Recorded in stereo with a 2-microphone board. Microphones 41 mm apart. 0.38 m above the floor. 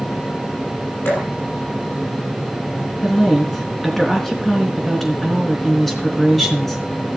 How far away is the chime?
No chime in this recording.